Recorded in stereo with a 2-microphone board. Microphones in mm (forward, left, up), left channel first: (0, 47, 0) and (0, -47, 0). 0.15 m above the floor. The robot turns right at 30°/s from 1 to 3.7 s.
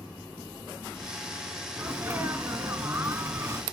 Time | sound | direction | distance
1.8 | a sneeze | 20° right (ahead or behind) | 1.1 m